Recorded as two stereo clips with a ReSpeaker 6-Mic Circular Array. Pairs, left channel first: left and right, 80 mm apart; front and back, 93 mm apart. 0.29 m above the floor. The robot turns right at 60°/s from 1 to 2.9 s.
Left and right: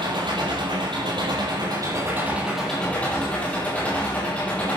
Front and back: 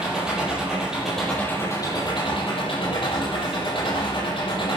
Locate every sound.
0.0 s an engine running: 95° right, 8 m; by 4.8 s 20° left, 8 m